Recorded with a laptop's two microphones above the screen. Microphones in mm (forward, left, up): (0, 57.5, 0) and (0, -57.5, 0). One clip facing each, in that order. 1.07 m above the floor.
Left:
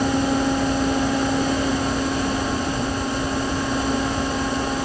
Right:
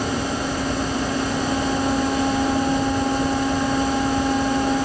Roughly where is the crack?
I don't hear a crack.